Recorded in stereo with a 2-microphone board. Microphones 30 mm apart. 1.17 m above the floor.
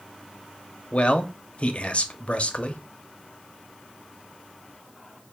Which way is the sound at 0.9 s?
45° left (ahead or behind).